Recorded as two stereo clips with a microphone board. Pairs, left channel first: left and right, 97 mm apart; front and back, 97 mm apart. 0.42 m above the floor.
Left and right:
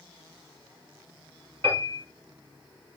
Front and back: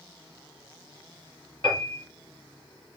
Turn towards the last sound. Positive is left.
turn(degrees=-40)